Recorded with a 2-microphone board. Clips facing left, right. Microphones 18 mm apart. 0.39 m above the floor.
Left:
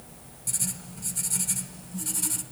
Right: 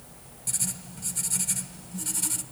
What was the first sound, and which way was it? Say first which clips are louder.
Writing: even; 5° right (ahead or behind).